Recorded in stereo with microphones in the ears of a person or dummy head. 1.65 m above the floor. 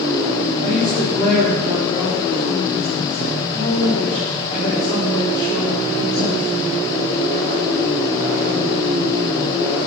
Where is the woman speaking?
40° left (ahead or behind), 5 m; by 6.9 s 75° left (ahead or behind), 6 m.